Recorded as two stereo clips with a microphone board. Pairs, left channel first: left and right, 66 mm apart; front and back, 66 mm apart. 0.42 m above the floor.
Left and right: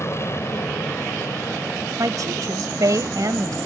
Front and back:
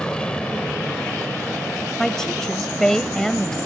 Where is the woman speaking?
80° right.